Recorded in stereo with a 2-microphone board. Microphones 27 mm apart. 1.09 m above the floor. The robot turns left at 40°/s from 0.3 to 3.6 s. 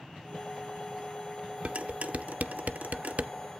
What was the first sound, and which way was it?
Dishes clattering, 50° right (ahead or behind).